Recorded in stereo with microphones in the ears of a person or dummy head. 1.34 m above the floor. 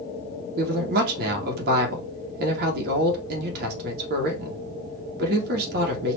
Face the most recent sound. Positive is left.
turn(degrees=-65)  # may be behind; listen again after turning